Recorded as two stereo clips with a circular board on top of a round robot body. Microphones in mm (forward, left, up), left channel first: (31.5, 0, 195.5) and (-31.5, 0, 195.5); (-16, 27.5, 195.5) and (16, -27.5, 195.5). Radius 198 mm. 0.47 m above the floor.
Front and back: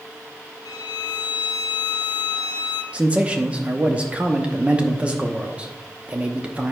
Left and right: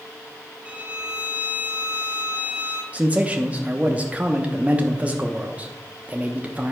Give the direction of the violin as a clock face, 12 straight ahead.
12 o'clock.